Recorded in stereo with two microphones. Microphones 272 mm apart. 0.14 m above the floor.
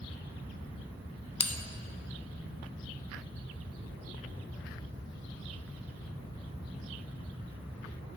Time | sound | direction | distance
1.4 | a bell | 25° left (ahead or behind) | 1.1 m